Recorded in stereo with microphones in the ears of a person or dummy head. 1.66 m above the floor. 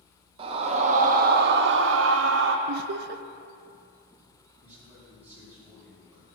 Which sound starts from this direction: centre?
A man speaking, at 4.6 s.